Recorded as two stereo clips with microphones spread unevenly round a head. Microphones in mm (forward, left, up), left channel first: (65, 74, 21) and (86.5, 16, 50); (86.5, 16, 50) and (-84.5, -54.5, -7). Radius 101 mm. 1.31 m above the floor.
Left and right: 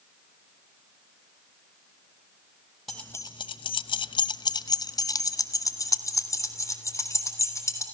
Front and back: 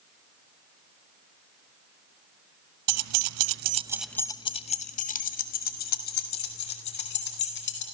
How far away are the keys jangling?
About 1.0 m.